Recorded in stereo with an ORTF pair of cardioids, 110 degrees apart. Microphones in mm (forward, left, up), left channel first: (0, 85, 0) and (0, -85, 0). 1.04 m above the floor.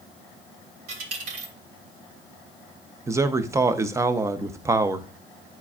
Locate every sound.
0.9 s a dropped coin: 60° right, 2.5 m
3.1 s a man speaking: 15° right, 0.7 m